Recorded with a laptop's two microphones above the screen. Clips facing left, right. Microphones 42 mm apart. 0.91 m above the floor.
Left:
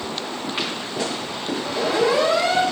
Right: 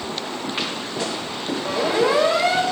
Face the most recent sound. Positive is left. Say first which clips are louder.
# right 1 dB
turn(degrees=-20)  # may be behind; listen again after turning